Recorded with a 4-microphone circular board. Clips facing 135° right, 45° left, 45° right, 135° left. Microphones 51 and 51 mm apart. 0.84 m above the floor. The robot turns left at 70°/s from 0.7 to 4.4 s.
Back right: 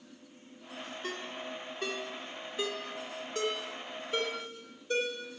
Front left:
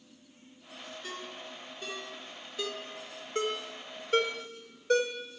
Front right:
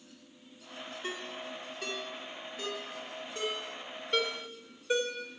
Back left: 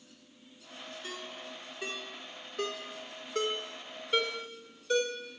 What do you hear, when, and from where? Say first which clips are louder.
1.0 s a ringtone: back right 3 dB, front right 4 dB; 95° right, 1.4 m; by 5.1 s 30° left, 1.4 m